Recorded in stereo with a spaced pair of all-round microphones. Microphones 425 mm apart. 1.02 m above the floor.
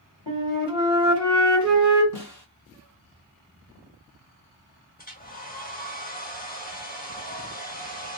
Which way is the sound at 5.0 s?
20° left (ahead or behind).